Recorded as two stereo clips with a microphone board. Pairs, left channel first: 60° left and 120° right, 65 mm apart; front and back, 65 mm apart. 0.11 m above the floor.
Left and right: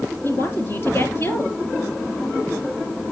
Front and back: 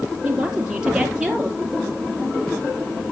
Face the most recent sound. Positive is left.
turn(degrees=105)